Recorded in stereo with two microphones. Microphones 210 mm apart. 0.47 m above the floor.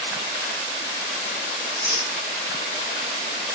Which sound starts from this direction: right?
Tearing paper, at 1.6 s.